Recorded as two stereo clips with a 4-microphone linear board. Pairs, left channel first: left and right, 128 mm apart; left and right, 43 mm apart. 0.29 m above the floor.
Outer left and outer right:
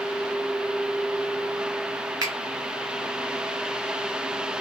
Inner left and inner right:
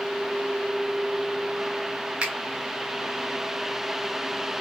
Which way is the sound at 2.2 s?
30° right (ahead or behind).